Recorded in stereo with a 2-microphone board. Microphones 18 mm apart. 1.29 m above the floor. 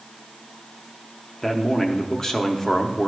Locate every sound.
1.4 s a man speaking: 25° left (ahead or behind), 0.7 m